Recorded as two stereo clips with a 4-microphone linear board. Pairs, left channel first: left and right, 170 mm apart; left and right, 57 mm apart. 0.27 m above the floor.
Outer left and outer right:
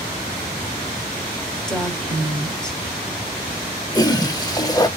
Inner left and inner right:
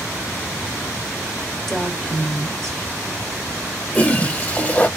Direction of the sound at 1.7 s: 5° left (ahead or behind).